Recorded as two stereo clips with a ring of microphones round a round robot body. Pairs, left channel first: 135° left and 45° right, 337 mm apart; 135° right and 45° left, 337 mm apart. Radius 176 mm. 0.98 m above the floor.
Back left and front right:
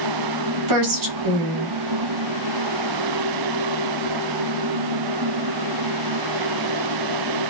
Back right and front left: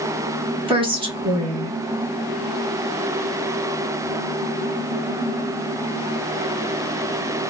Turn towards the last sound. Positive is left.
turn(degrees=-30)